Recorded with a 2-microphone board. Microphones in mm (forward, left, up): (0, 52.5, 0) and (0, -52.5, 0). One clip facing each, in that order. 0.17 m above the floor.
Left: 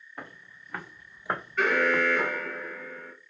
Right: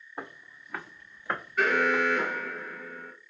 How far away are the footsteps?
About 0.9 m.